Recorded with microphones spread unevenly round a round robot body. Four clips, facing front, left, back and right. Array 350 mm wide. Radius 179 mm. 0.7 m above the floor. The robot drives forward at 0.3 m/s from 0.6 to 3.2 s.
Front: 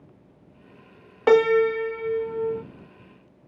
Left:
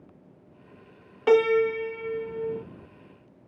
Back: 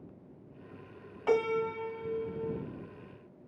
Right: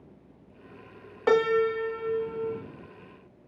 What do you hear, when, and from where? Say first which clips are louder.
1.3 s a piano: left 3 dB, front 12 dB; straight ahead, 0.9 m; by 2.6 s 5° left, 0.6 m